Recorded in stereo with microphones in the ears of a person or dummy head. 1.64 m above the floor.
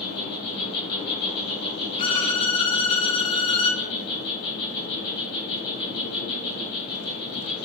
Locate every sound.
0.0 s an insect: 30° left (ahead or behind), 3 m
2.0 s a violin: 30° left (ahead or behind), 1.1 m